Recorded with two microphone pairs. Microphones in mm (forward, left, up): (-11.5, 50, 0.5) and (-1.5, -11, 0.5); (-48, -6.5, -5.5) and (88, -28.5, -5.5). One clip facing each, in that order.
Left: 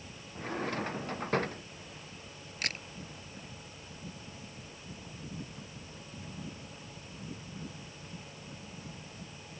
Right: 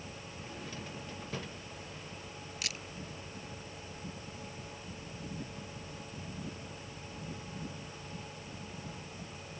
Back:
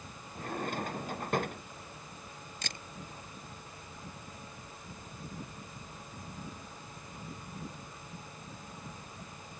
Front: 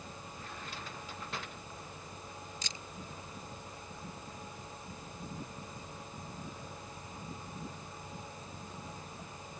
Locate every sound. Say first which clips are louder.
0.3 s a drawer: left 12 dB, back 14 dB; 135° left
2.6 s a camera shutter: left 6 dB, back 2 dB; 140° left